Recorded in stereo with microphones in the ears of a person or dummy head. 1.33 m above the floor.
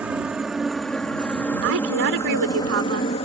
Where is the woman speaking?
80° right.